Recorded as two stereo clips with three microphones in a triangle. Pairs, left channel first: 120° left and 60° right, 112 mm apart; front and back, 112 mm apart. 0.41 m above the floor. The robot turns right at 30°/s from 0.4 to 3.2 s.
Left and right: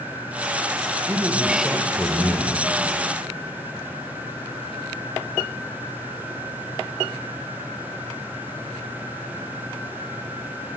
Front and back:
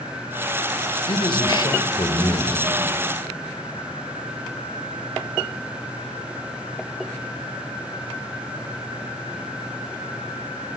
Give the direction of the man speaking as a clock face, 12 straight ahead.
12 o'clock.